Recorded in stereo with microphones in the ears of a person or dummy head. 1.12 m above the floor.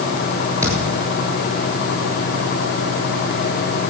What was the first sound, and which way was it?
A thud, 20° right (ahead or behind).